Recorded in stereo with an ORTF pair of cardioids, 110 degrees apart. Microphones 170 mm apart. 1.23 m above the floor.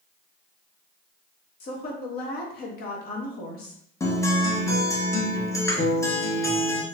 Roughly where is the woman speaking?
Ahead left.